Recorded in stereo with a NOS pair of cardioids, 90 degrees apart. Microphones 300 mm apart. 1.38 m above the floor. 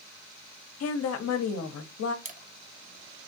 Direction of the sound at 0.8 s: 55° left.